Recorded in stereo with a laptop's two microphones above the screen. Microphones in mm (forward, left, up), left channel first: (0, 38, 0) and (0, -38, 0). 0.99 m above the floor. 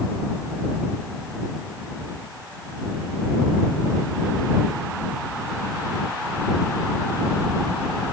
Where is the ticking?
No ticking in this recording.